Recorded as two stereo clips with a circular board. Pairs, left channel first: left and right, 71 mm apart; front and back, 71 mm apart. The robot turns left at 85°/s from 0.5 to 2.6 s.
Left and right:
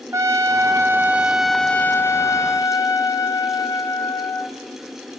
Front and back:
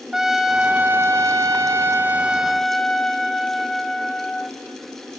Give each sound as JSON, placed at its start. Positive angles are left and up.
{"t": 0.1, "sound": "a trumpet", "azimuth_deg": -100, "distance_m": 0.9}